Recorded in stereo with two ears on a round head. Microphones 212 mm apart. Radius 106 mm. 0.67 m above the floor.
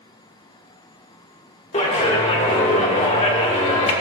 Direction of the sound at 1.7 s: 30° left (ahead or behind).